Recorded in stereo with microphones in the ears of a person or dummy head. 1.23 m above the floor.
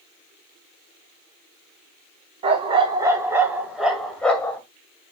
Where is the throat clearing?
I don't hear throat clearing.